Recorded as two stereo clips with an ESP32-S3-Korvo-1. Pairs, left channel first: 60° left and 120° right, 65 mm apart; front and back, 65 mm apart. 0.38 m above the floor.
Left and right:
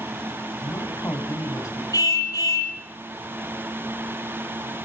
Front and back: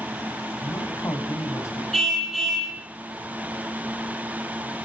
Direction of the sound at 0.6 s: 35° left.